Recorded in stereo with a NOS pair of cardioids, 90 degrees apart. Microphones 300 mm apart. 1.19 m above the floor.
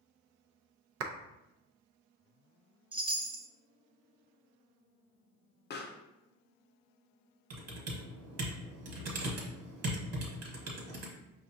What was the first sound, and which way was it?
A clap, 55° right.